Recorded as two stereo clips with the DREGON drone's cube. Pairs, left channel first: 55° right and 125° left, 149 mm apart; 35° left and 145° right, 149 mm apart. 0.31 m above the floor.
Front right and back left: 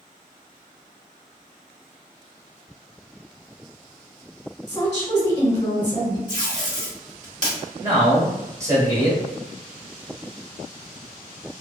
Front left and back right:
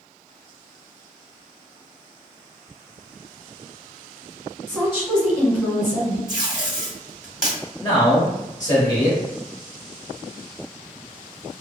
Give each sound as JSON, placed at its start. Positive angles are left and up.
{"t": 4.7, "sound": "a woman speaking", "azimuth_deg": -50, "distance_m": 1.2}
{"t": 6.3, "sound": "tape being pulled", "azimuth_deg": 135, "distance_m": 1.8}
{"t": 7.8, "sound": "a man speaking", "azimuth_deg": 70, "distance_m": 1.1}